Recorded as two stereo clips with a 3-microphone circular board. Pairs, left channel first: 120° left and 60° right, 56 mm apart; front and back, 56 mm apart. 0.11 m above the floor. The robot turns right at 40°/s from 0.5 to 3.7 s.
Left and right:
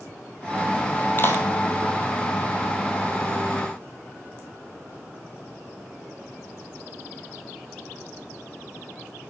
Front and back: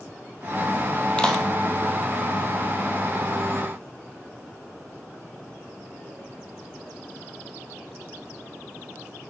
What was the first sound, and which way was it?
A clap, 70° left.